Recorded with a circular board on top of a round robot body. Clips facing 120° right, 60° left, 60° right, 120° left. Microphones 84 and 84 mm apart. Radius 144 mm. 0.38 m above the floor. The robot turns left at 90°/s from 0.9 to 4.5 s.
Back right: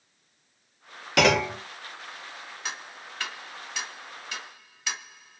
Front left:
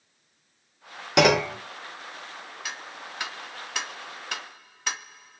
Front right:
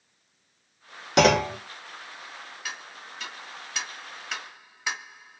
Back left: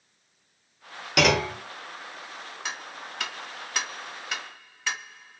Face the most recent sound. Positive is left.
turn(degrees=15)